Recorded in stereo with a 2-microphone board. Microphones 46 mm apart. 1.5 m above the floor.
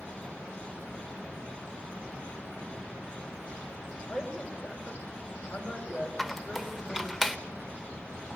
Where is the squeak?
5° right (ahead or behind), 1.0 m.